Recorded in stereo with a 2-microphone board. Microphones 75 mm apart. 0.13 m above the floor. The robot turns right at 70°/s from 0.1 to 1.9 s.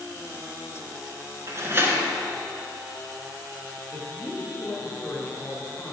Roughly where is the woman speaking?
Left.